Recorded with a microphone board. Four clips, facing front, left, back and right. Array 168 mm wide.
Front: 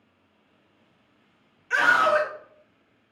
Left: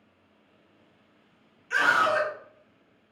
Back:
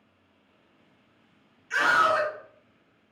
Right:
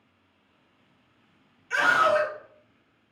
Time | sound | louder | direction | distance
1.7 | a scream | right 2 dB, front 2 dB | straight ahead | 2 m